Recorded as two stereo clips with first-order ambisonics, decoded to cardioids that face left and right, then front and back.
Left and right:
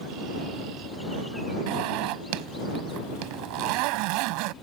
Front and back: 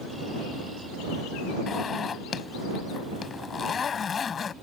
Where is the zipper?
70° right.